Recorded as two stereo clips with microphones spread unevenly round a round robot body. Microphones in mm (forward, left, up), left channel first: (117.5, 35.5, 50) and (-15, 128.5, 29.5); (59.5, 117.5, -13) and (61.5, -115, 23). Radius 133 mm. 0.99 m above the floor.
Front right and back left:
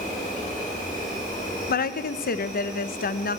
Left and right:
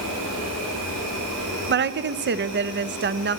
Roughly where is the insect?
Right.